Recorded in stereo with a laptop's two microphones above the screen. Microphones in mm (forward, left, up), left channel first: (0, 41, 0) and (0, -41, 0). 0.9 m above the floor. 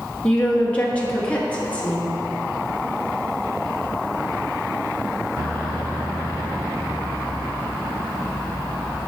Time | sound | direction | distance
0.2 | a woman speaking | 15° left (ahead or behind) | 1.0 m